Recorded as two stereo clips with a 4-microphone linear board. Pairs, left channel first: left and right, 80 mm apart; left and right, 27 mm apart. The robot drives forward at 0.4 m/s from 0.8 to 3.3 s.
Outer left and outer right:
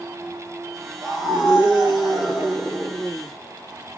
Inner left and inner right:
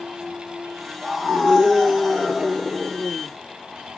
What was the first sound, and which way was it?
A scream, 5° right (ahead or behind).